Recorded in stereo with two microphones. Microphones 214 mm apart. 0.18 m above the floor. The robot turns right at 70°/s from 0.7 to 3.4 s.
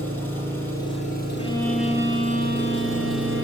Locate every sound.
0.0 s an engine running: 10° left, 6 m; by 3.4 s 160° right, 6 m
1.4 s a violin: 155° left, 2.5 m; by 3.4 s 65° right, 2.5 m